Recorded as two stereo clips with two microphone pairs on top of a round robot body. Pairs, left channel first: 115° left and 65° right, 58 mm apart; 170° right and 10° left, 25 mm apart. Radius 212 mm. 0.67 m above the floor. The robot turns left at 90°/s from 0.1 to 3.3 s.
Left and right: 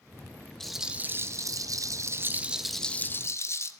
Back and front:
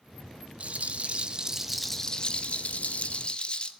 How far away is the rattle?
About 1.7 m.